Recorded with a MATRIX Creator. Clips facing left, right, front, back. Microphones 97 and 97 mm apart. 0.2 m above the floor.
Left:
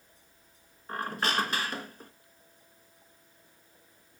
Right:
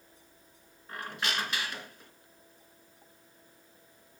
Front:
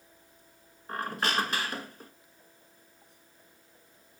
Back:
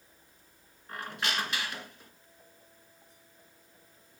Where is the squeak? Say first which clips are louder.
Left 5 dB, front 4 dB; 45° left, 0.9 m.